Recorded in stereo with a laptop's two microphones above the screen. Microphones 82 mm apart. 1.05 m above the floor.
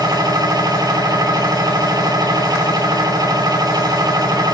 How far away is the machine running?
About 1.7 m.